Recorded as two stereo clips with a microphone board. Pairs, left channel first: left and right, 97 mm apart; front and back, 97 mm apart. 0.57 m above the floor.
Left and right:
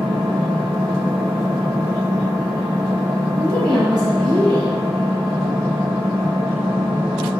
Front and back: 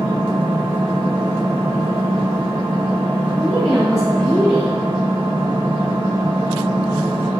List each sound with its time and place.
0.0 s an engine running: 175° right, 1.5 m
3.4 s a woman speaking: 90° right, 1.0 m